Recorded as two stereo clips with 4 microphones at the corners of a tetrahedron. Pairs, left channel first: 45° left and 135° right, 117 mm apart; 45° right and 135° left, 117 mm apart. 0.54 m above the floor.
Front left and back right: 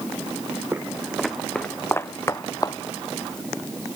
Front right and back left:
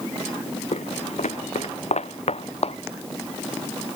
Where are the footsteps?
65° right; by 2.8 s 10° right.